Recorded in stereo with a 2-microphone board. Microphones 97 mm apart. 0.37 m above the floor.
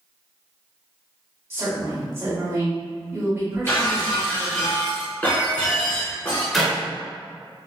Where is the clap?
Centre (ahead or behind), 0.7 m.